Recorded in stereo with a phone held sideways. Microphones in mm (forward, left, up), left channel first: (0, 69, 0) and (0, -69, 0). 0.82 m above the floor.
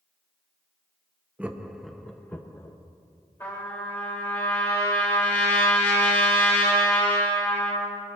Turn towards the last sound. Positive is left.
turn(degrees=15)  # may be behind; listen again after turning